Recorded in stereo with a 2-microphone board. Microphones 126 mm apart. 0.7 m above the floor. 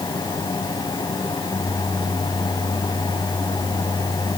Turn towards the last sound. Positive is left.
No sound to turn to.